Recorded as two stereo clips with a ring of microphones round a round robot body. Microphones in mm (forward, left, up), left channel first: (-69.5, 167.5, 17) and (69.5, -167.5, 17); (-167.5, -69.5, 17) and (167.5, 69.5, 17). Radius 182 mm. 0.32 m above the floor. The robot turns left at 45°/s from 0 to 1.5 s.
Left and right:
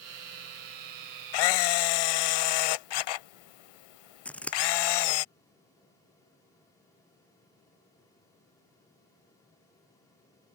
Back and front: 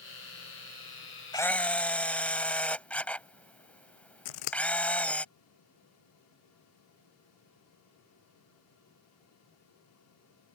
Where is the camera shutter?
125° left; by 5.2 s 115° left.